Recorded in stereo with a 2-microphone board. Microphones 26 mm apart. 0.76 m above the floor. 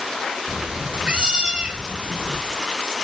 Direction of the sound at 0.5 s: 35° right (ahead or behind).